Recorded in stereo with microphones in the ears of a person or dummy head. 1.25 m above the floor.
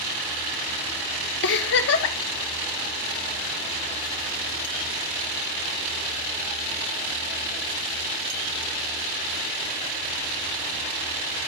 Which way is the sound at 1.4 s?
55° left (ahead or behind).